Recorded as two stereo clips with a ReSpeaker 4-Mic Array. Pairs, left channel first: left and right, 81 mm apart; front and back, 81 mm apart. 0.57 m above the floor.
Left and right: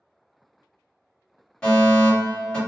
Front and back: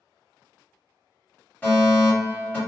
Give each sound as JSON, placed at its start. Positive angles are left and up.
{"t": 1.6, "sound": "a fire alarm", "azimuth_deg": 35, "distance_m": 1.6}